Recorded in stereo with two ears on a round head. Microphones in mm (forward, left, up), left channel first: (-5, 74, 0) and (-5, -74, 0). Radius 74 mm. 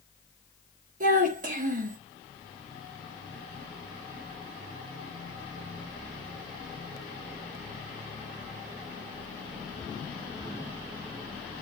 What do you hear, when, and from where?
1.0 s a child speaking: 55° right (ahead or behind), 0.9 m